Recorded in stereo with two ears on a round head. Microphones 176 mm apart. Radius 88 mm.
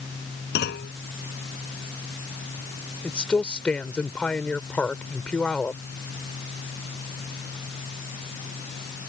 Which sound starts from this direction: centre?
A woman speaking, at 3.0 s.